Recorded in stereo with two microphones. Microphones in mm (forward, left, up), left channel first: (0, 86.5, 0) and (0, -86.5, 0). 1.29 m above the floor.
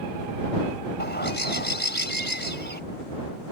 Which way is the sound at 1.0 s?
70° left (ahead or behind).